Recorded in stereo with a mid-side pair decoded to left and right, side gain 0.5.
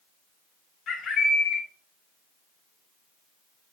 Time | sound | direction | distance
0.9 | a bird | 60° left | 6 m